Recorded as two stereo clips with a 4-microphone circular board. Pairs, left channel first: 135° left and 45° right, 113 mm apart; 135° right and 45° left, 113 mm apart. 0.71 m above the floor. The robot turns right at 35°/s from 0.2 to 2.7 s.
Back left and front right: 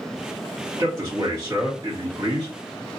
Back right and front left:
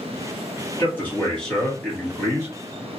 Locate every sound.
0.8 s a man speaking: 80° right, 1.3 m; by 2.5 s 20° right, 1.3 m